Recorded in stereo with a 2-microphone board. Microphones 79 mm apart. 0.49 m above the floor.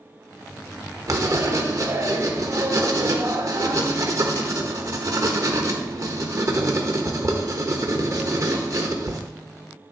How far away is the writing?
About 1.1 m.